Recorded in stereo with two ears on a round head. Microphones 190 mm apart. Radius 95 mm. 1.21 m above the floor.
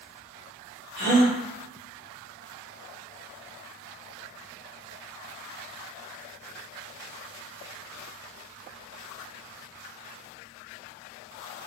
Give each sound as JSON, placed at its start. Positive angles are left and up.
{"t": 1.0, "sound": "a gasp", "side_deg": -40, "distance_m": 1.2}